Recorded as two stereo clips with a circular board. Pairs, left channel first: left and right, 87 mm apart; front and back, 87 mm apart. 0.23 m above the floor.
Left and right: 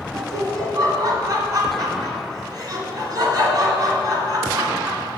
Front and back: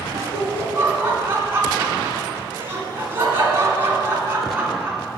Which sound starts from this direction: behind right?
Laughter, at 0.1 s.